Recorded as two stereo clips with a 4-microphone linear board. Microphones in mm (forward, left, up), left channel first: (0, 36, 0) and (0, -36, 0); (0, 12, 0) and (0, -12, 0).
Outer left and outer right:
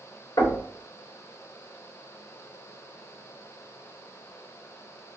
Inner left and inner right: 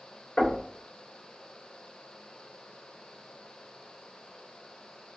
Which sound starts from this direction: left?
Knocking, at 0.4 s.